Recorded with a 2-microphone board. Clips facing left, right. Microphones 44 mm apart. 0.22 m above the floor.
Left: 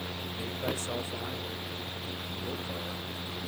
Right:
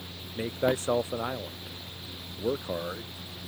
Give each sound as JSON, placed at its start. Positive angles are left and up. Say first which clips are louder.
{"t": 0.3, "sound": "a man speaking", "louder": "right 9 dB", "side_deg": -40}